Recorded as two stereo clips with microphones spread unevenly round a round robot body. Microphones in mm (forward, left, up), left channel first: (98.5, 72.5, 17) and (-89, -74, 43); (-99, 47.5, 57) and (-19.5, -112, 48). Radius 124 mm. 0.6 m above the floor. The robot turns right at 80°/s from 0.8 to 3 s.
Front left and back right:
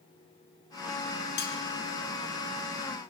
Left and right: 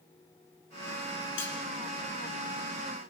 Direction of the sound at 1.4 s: 90° left.